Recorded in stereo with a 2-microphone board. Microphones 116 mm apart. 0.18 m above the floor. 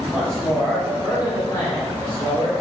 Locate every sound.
0.1 s a man speaking: centre (ahead or behind), 1.8 m; by 2.5 s 45° left (ahead or behind), 2.5 m